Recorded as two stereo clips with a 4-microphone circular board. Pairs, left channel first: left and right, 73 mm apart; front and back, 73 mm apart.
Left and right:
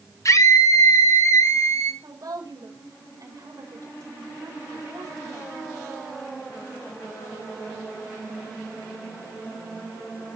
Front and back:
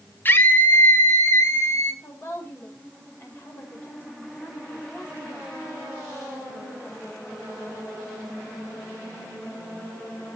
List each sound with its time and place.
0.2 s a scream: 55° left, 1.3 m; by 1.9 s 45° left, 2 m
2.0 s a woman speaking: 55° right, 5.5 m